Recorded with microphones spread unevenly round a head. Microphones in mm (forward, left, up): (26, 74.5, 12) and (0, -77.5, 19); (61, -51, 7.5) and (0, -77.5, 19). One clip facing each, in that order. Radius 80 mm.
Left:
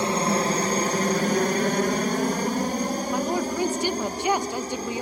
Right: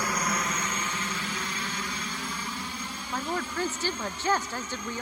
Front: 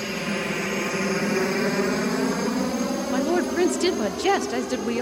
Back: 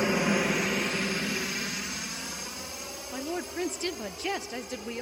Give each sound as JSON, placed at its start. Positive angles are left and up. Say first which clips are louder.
{"t": 0.0, "sound": "a helicopter", "louder": "left 8 dB, back 2 dB", "azimuth_deg": 130}
{"t": 3.1, "sound": "a woman speaking", "louder": "left 3 dB, front 10 dB", "azimuth_deg": 0}